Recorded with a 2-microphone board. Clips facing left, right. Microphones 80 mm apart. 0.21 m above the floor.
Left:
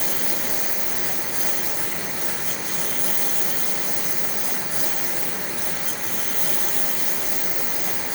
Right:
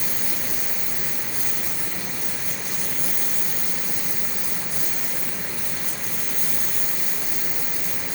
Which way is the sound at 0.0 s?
75° left (ahead or behind).